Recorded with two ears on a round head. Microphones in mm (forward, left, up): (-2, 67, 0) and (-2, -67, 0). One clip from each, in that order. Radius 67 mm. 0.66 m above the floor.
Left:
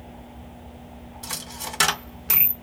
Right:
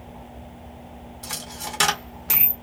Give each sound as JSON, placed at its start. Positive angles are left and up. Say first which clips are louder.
{"t": 1.2, "sound": "a dropped coin", "louder": "even", "side_deg": 5, "distance_m": 0.5}